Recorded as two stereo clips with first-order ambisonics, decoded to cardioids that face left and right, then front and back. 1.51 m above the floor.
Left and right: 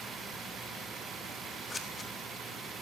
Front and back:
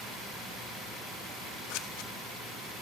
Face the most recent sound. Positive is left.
turn(degrees=15)